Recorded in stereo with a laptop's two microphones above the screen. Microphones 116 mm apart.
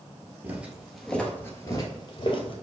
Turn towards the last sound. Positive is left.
turn(degrees=50)  # may be behind; listen again after turning